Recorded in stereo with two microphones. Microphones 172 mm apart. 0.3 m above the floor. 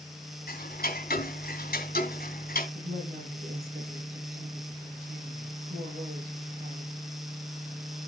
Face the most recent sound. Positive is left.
turn(degrees=-70)  # may be behind; listen again after turning